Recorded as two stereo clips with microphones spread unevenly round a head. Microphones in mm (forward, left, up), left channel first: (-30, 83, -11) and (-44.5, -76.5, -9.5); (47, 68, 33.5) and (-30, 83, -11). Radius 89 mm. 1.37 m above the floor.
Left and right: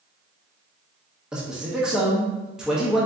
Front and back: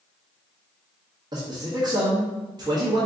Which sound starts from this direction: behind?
A man speaking, at 1.3 s.